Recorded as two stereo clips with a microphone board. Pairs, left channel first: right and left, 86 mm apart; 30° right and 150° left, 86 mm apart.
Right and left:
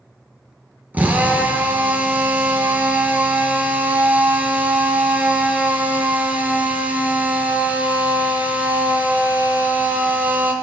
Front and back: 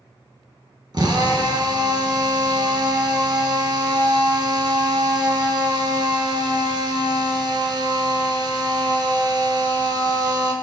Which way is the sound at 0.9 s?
155° left.